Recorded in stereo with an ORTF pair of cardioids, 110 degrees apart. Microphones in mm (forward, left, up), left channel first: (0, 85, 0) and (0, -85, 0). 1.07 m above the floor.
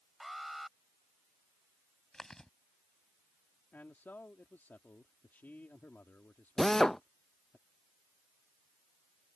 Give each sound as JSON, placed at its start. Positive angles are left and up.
{"t": 0.2, "sound": "an alarm", "azimuth_deg": 0}
{"t": 2.1, "sound": "chewing", "azimuth_deg": 5}
{"t": 3.7, "sound": "a man speaking", "azimuth_deg": 10}
{"t": 6.6, "sound": "a drill", "azimuth_deg": 5}